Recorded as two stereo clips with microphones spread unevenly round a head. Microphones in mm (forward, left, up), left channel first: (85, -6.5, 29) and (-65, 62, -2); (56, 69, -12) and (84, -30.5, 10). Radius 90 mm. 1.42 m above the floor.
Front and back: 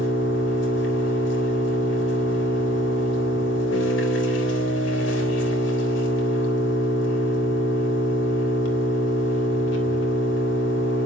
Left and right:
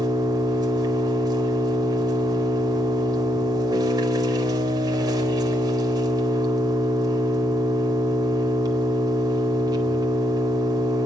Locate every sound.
0.0 s an engine running: 25° right, 4 m